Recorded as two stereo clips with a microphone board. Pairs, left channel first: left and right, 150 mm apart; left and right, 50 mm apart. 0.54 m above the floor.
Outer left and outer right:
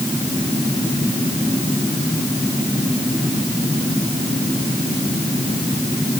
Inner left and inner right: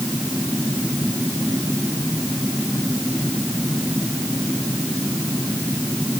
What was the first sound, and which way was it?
Only background noise.